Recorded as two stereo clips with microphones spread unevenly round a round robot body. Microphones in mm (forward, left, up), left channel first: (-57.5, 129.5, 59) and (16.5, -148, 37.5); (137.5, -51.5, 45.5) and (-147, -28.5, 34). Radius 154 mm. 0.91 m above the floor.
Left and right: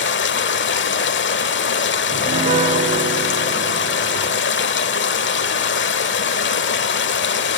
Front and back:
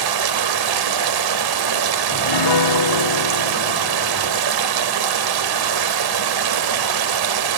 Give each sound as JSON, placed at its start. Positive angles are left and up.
{"t": 0.0, "sound": "running water", "azimuth_deg": 155, "distance_m": 1.6}
{"t": 2.1, "sound": "a piano", "azimuth_deg": 0, "distance_m": 1.3}